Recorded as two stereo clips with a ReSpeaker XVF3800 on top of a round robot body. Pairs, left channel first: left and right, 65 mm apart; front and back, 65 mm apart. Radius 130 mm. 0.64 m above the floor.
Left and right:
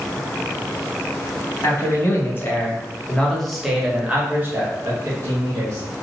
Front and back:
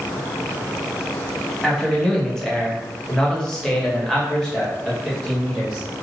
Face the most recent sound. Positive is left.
turn(degrees=-85)